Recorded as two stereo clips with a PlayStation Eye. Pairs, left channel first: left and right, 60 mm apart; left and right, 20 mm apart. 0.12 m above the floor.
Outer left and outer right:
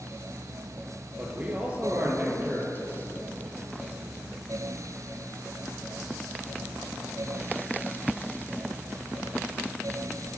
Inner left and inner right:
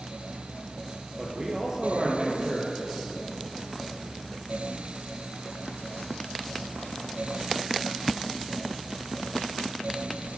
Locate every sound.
1.2 s a man speaking: 25° right (ahead or behind), 3 m